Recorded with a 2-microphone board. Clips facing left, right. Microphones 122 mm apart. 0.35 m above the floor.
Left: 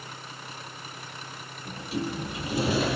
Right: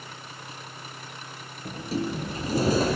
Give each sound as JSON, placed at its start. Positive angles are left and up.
{"t": 1.6, "sound": "a sliding door", "side_deg": -40, "distance_m": 5.0}